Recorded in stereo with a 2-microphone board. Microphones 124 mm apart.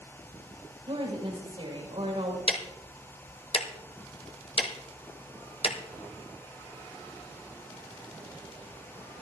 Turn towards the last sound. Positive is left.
turn(degrees=50)  # may be behind; listen again after turning